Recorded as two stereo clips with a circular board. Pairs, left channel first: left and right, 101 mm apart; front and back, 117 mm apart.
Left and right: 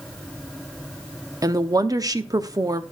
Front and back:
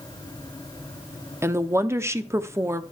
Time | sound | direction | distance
1.4 | a woman speaking | 125° right | 0.7 m